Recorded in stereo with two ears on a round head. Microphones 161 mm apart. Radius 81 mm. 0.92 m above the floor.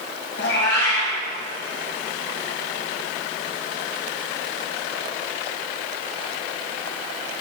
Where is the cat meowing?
70° left (ahead or behind), 2.5 m.